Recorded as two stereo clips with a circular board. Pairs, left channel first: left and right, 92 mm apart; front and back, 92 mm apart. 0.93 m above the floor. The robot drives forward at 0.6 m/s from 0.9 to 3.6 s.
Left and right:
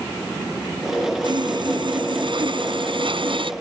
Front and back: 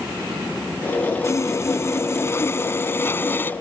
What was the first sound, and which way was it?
Sawing, 55° right.